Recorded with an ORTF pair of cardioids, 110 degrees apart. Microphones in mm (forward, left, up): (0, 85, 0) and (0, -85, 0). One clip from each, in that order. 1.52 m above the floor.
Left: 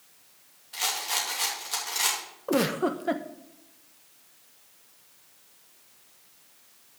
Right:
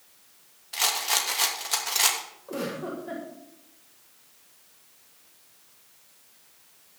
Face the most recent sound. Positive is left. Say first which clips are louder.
# left 8 dB
turn(degrees=65)